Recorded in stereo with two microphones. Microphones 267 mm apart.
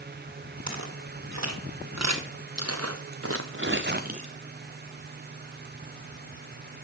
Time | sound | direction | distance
0.7 | footsteps | 85° right | 2.5 m